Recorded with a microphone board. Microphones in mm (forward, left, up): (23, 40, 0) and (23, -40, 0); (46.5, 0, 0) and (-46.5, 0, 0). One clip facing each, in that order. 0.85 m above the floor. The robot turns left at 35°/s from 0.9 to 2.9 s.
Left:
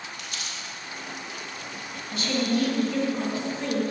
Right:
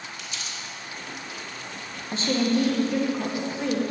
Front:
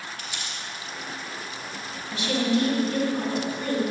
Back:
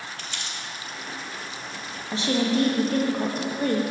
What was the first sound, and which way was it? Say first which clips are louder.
Crumpling: even, even; 75° left.